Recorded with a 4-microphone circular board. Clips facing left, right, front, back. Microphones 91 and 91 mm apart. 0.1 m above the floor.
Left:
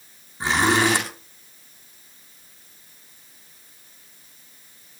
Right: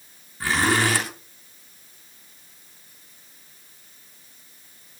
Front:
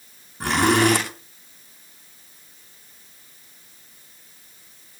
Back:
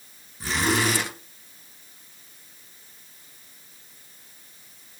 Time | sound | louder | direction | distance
0.4 | a zipper | left 2 dB, front 6 dB | 20° left | 9 m